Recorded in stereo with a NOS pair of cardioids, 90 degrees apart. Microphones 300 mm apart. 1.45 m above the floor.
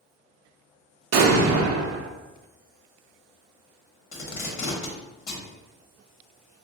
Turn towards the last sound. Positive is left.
turn(degrees=65)